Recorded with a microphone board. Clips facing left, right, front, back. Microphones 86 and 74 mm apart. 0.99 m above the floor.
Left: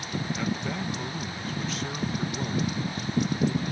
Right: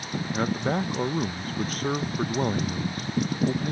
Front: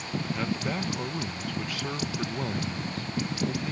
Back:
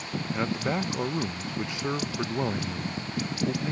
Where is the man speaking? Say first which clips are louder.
Right 7 dB, back 4 dB; 115° right.